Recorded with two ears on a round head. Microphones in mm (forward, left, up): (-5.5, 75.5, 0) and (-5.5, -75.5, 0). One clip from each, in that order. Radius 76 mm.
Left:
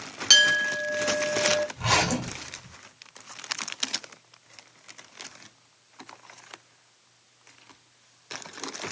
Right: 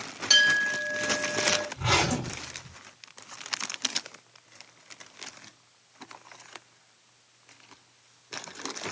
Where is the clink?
35° left (ahead or behind), 0.7 m.